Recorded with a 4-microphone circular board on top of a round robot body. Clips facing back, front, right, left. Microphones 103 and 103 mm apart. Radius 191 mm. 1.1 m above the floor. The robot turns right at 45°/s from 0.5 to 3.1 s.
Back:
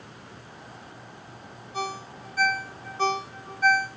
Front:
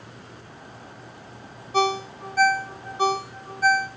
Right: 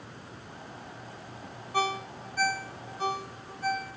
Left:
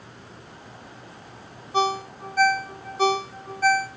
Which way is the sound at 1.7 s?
20° left.